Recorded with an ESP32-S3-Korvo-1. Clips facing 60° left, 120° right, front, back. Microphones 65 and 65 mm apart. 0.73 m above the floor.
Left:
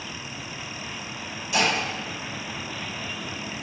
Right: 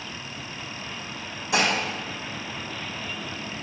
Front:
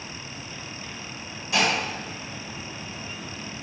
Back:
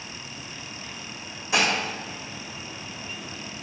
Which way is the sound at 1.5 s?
110° right.